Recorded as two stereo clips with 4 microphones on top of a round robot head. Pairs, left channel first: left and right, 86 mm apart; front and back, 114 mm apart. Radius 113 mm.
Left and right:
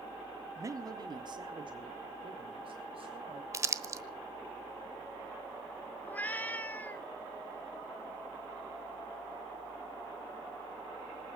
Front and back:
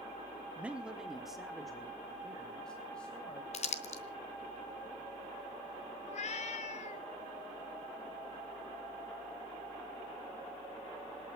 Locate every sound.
0.6 s a man speaking: 110° right, 1.0 m; by 3.4 s 80° right, 2.5 m
3.5 s crumpling: 35° right, 1.3 m
6.0 s a cat meowing: 20° left, 0.7 m